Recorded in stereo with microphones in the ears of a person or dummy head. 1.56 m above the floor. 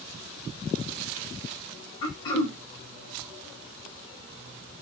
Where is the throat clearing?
25° left (ahead or behind), 3.5 m.